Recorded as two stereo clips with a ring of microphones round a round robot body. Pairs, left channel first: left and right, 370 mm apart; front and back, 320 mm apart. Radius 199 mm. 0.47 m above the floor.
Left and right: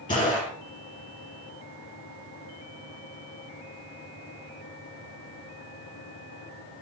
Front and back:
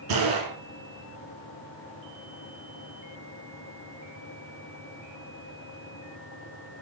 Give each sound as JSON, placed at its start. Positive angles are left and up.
{"t": 0.1, "sound": "a gunshot", "azimuth_deg": 170, "distance_m": 5.0}